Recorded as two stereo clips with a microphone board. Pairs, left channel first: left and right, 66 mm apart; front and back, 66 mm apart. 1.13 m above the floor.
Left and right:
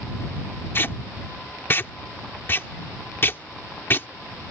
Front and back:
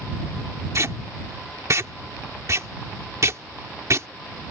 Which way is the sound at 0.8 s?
140° left.